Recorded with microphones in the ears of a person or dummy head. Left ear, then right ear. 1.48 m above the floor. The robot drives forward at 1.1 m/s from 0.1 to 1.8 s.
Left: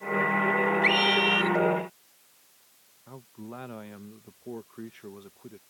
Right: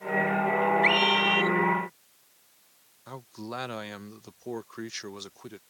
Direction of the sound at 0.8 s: 10° right (ahead or behind).